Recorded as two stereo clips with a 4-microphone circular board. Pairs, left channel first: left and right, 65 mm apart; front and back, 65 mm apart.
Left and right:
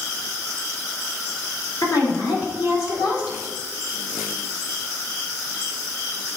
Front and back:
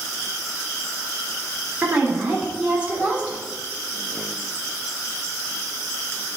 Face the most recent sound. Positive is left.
turn(degrees=115)